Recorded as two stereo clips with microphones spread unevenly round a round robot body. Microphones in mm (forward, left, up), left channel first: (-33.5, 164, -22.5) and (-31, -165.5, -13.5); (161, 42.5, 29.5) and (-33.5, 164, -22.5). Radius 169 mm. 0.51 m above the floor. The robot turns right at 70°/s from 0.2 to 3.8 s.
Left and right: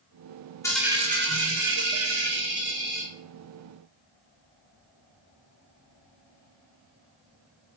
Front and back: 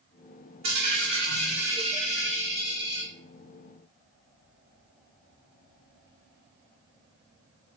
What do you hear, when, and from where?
0.6 s a dropped coin: 170° left, 1.7 m; by 3.1 s 15° right, 1.7 m